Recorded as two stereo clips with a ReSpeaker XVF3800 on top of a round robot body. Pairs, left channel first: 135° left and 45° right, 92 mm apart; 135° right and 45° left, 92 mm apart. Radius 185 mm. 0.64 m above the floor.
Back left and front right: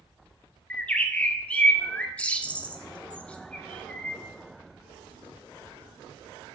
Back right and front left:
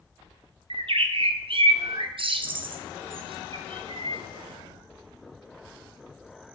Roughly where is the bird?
Ahead left.